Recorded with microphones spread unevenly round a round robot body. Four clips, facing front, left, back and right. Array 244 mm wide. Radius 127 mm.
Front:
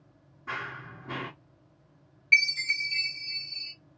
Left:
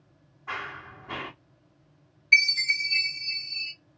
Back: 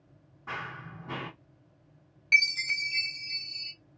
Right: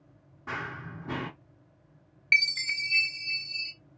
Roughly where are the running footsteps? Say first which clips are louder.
Even, front 2 dB; right.